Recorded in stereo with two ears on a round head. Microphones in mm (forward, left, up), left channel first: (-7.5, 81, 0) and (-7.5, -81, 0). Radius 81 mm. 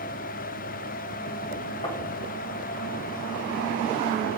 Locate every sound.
1.8 s tapping: 25° left (ahead or behind), 1.1 m